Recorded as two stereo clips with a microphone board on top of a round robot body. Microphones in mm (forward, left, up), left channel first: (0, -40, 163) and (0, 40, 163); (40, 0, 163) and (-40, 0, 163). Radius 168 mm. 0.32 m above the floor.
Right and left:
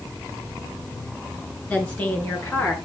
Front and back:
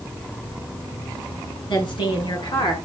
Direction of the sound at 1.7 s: 15° right.